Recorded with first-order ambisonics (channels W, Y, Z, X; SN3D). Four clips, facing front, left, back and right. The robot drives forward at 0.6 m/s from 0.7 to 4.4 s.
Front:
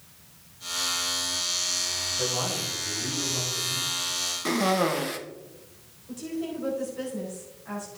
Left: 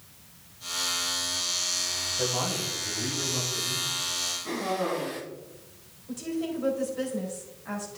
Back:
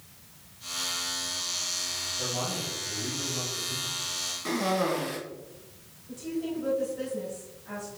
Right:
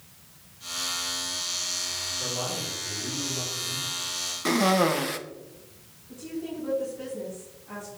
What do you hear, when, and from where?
2.2 s a man speaking: 55° left, 3.5 m; by 3.9 s 70° left, 3 m
4.5 s a cough: 65° right, 1.1 m
6.1 s a woman speaking: 70° left, 4 m